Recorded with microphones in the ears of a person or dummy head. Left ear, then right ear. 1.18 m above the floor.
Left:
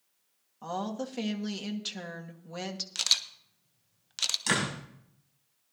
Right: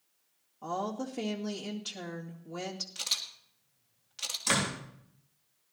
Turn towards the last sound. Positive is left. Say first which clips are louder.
# right 4 dB
turn(degrees=55)  # may be behind; listen again after turning